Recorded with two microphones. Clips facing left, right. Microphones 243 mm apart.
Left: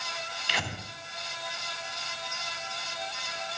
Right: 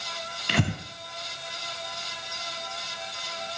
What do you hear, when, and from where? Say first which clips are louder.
0.5 s breathing: right 11 dB; 55° right (ahead or behind), 1.9 m